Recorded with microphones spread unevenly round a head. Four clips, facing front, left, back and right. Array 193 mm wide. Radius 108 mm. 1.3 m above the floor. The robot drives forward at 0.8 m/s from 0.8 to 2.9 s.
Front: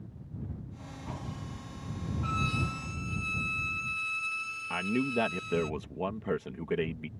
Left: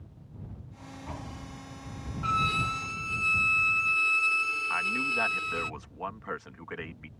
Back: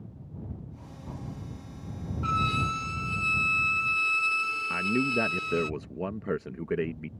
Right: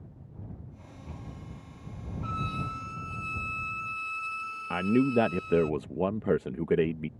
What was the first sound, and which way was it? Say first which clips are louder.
A violin: left 6 dB, back 6 dB; 120° left.